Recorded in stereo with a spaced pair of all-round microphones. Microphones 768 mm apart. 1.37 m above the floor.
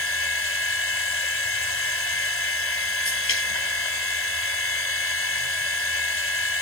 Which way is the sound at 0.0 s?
55° left (ahead or behind).